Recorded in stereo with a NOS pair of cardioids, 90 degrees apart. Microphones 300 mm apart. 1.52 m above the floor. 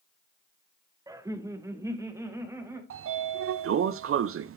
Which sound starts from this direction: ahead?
Laughter, at 1.1 s.